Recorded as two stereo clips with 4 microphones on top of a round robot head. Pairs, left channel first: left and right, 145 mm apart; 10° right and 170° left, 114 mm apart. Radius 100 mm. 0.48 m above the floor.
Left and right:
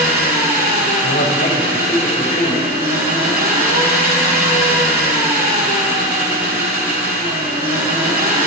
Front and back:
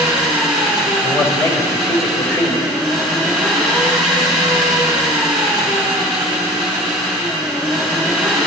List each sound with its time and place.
0.0 s an engine running: 95° right, 2.5 m
1.0 s a man speaking: 50° left, 2.5 m